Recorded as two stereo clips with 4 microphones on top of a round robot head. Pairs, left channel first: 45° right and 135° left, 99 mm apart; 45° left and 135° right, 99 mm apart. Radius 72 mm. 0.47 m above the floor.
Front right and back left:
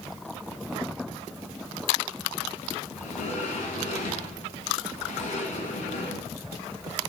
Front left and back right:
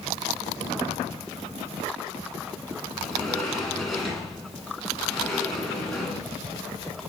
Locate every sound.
3.0 s a sliding door: 45° right, 2 m